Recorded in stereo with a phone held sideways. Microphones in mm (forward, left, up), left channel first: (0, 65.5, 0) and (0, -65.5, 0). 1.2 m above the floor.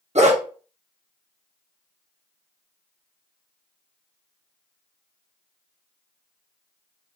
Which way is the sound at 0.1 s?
60° right (ahead or behind).